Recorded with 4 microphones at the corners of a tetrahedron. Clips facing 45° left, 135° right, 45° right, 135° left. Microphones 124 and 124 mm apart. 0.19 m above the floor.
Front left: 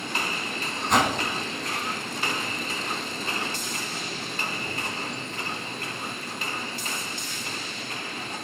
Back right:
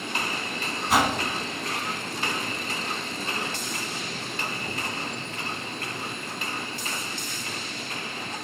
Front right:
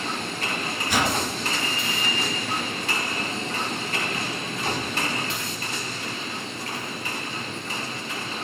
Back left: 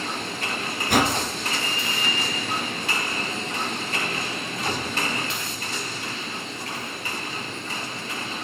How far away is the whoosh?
About 2 m.